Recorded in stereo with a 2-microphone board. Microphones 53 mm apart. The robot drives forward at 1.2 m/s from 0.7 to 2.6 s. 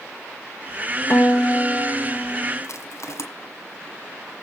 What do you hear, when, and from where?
1.1 s a guitar: 45° left (ahead or behind), 1.0 m; by 2.5 s 15° left (ahead or behind), 2.5 m
2.6 s crushing: 60° left (ahead or behind), 1.7 m